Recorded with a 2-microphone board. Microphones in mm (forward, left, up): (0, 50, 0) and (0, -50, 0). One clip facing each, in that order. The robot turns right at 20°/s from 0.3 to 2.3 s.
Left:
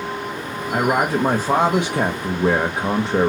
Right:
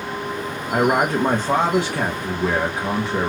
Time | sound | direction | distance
0.7 | a man speaking | 5° right | 1.0 m